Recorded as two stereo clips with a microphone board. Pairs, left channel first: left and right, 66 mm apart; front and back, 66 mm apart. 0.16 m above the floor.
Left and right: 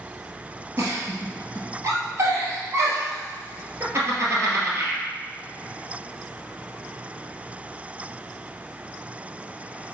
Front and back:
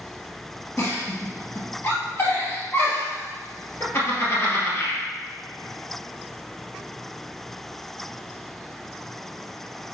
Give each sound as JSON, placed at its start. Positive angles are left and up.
{"t": 0.8, "sound": "a giggle", "azimuth_deg": -50, "distance_m": 2.5}